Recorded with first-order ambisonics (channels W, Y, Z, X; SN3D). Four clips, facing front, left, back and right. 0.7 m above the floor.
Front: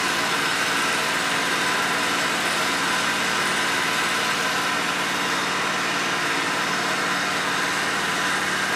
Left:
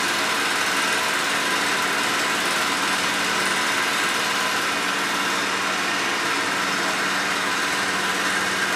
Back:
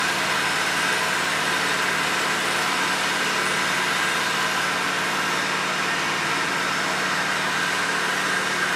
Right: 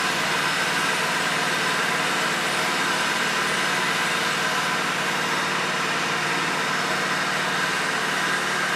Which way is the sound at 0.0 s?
85° left.